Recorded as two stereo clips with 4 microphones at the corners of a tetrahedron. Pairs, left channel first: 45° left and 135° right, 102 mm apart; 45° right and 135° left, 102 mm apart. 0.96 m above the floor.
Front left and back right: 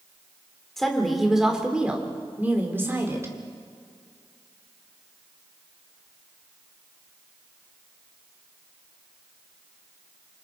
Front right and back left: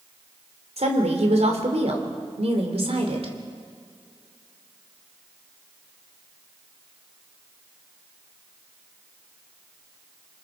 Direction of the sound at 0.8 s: 130° left.